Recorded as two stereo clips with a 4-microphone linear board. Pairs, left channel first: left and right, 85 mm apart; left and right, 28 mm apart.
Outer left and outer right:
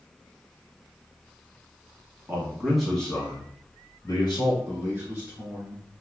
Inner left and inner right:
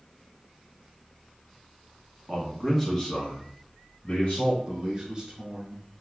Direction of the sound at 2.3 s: 20° right (ahead or behind).